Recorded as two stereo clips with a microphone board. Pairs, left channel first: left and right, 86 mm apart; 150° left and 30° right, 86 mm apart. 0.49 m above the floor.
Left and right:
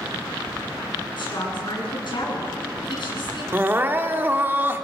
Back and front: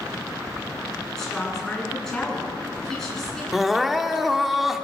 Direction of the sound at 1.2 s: 65° left.